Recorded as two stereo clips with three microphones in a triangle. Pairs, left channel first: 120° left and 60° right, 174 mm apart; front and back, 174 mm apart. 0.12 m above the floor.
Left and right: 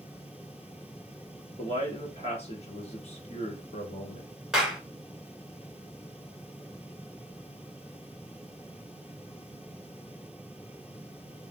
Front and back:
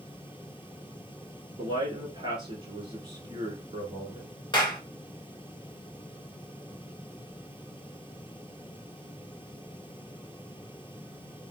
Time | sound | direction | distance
1.6 | a man speaking | 135° left | 1.4 m
4.5 | a clap | 20° left | 1.1 m